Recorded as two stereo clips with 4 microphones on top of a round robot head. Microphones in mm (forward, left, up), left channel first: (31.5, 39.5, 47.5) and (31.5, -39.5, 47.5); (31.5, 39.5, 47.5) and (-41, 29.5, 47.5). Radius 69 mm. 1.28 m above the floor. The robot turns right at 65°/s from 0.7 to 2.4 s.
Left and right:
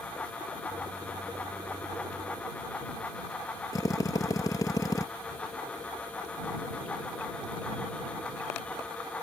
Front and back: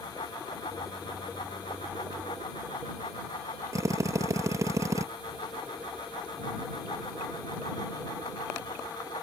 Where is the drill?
145° left.